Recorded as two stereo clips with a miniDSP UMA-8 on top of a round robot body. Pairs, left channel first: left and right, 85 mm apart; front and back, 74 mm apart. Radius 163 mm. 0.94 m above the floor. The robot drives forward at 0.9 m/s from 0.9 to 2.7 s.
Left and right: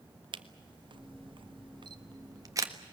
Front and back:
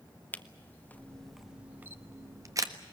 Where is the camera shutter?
70° right, 1.1 m; by 2.7 s 140° right, 1.6 m.